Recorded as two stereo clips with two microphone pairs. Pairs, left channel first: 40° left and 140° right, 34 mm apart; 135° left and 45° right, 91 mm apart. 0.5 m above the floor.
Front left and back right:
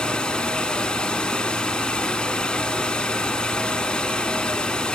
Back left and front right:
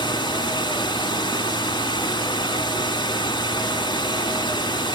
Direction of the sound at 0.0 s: 105° left.